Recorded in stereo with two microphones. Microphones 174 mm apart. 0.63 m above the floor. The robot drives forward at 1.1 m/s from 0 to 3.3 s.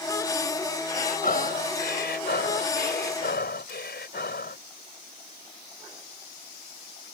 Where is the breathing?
50° left (ahead or behind); by 4.6 s 70° left (ahead or behind).